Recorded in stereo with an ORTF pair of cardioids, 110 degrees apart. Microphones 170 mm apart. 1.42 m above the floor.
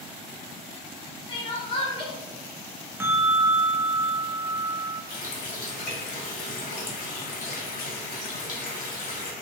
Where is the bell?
15° right, 0.5 m.